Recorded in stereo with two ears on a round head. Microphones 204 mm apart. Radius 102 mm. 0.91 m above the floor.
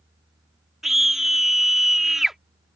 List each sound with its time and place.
0.8 s a scream: centre (ahead or behind)